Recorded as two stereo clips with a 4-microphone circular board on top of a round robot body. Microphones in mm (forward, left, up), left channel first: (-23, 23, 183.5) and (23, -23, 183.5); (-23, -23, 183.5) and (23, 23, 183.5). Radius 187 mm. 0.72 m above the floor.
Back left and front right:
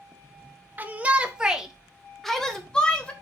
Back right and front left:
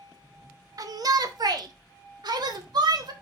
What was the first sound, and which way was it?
A shout, 20° left.